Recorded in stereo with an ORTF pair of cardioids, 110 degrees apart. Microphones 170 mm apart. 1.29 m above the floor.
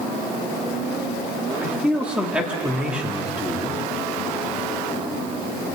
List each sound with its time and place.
1.6 s a man speaking: 5° right, 3 m